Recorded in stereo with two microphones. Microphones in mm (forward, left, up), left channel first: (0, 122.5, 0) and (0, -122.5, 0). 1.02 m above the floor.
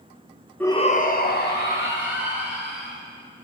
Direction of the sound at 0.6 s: 5° left (ahead or behind).